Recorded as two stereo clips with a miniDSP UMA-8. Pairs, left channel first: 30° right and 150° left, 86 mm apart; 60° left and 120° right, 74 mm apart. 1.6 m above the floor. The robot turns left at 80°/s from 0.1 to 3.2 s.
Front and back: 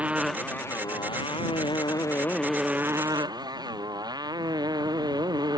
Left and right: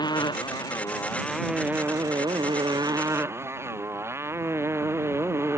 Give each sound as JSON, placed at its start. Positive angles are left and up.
{"t": 0.0, "sound": "a motorcycle", "azimuth_deg": 75}